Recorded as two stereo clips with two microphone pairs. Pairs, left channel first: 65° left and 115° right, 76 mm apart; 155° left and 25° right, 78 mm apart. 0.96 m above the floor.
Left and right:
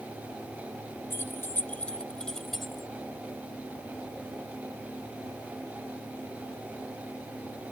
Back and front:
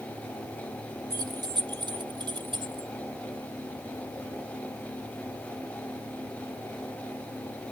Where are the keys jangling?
10° left; by 2.9 s 30° right.